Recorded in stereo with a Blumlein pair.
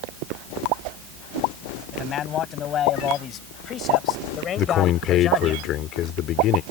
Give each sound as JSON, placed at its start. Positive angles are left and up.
{"t": 1.9, "sound": "a man speaking", "azimuth_deg": 30}
{"t": 4.6, "sound": "a man speaking", "azimuth_deg": 35}